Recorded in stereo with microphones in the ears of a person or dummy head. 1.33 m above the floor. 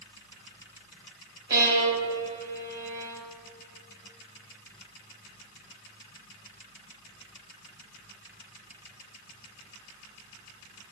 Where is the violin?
20° right (ahead or behind), 4.5 m.